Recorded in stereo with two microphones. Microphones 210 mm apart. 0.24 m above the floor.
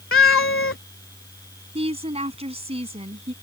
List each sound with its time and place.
0.1 s a cat meowing: 75° left (ahead or behind)
1.8 s a woman speaking: 30° right (ahead or behind)